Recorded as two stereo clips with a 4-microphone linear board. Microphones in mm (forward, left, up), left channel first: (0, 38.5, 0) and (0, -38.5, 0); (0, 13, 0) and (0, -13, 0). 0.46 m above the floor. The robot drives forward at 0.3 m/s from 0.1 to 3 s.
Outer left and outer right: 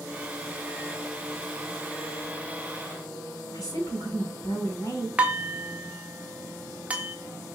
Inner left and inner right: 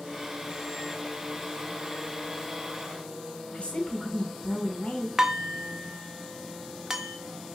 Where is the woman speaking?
65° left (ahead or behind), 2 m.